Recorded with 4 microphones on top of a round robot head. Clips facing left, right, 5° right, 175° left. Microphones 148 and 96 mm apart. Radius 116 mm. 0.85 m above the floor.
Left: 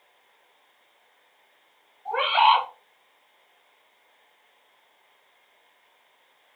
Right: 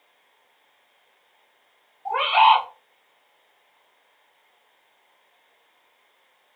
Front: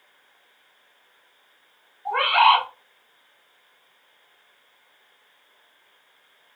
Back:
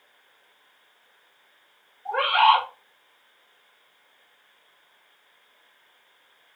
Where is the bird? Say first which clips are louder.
Right 3 dB, front 1 dB; 65° right, 1.1 m.